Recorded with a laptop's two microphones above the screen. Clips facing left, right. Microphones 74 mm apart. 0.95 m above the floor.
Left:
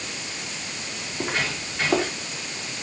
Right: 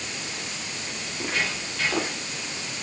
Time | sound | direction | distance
1.1 | footsteps | 20° left (ahead or behind) | 7.5 m